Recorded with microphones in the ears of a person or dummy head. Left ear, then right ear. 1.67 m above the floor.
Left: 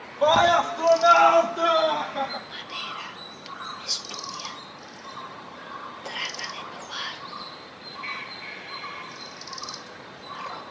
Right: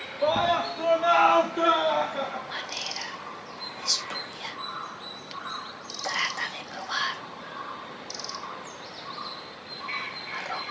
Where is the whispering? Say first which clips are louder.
Right 1 dB; 55° right (ahead or behind), 2 m.